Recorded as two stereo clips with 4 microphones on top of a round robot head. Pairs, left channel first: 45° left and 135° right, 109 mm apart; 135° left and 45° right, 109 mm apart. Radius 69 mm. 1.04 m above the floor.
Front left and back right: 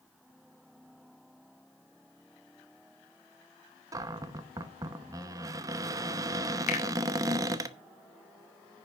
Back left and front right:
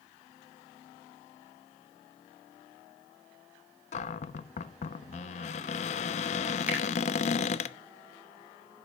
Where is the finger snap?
35° left, 3 m.